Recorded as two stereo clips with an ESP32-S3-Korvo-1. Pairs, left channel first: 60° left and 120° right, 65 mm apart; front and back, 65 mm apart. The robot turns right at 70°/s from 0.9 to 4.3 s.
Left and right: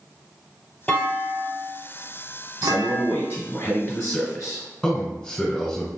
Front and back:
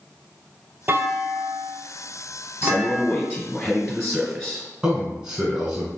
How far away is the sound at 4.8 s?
About 1.3 m.